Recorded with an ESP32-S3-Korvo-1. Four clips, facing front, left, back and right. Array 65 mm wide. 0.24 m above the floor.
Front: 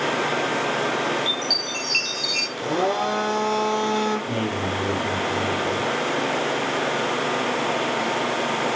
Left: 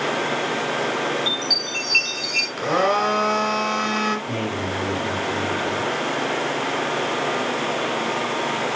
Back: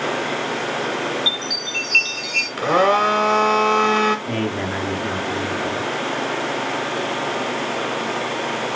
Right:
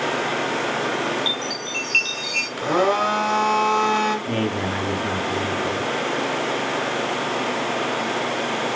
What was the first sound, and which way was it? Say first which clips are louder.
A chime: even, even; 145° right.